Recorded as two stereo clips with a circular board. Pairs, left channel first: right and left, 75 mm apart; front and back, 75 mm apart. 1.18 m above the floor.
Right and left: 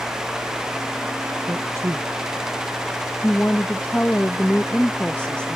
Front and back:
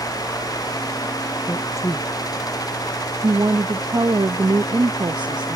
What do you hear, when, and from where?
1.5 s a man speaking: 45° left
3.2 s a woman speaking: 160° right